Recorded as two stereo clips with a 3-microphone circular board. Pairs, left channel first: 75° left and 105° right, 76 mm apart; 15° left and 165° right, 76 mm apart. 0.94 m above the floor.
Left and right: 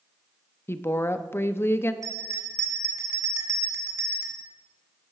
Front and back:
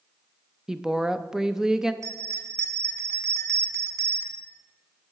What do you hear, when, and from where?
0.7 s a woman speaking: 115° left, 0.5 m
2.0 s a bell: 130° right, 1.3 m